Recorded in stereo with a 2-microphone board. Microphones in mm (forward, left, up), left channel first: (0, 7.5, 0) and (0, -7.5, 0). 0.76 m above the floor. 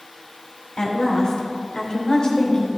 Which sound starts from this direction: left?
A woman speaking, at 0.8 s.